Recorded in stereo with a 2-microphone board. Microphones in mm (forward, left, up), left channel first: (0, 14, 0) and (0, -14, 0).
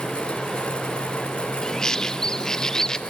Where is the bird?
25° left (ahead or behind), 0.7 m.